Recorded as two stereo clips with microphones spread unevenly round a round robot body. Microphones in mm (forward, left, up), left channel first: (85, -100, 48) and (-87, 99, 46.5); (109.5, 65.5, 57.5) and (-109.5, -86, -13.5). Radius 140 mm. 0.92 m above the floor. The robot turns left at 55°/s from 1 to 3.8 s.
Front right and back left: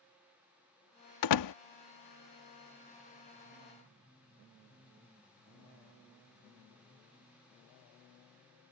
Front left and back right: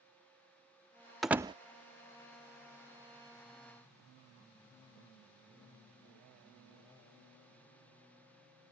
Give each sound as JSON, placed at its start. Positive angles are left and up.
{"t": 1.2, "sound": "a door slam", "azimuth_deg": -55}